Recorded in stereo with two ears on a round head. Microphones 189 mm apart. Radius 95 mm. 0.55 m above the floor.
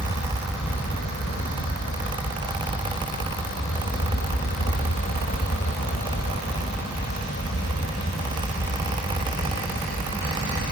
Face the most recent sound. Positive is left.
turn(degrees=45)  # may be behind; listen again after turning